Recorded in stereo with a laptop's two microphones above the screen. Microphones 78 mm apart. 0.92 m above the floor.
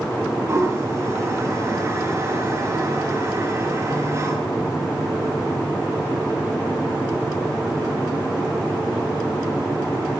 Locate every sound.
0.5 s a toilet flushing: 35° right (ahead or behind), 4.5 m